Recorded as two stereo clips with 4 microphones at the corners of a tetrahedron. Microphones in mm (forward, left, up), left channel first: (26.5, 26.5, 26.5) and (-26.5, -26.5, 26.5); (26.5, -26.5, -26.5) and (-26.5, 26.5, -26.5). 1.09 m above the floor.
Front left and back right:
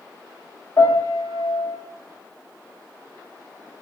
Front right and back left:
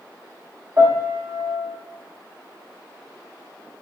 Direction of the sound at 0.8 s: 85° left.